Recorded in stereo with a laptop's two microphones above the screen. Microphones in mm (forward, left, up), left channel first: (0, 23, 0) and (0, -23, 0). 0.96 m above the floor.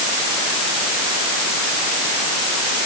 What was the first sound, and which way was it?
Only background noise.